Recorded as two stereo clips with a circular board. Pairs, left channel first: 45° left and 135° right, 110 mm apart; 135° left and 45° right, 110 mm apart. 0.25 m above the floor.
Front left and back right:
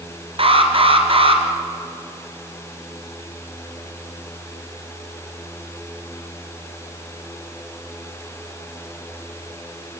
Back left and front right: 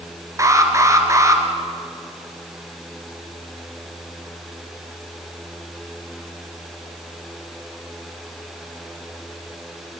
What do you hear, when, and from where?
0.4 s an alarm: 105° right, 2.5 m